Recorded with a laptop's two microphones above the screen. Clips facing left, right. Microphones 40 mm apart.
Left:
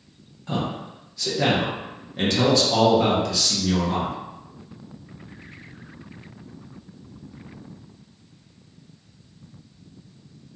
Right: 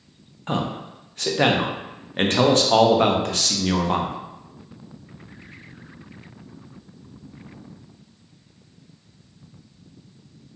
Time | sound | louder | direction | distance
0.5 | a man speaking | right 2 dB | 50° right (ahead or behind) | 0.5 m